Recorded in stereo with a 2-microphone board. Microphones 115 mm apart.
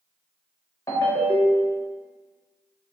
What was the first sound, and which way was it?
A ringtone, 25° left (ahead or behind).